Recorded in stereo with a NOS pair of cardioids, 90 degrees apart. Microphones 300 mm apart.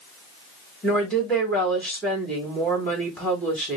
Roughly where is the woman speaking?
Ahead.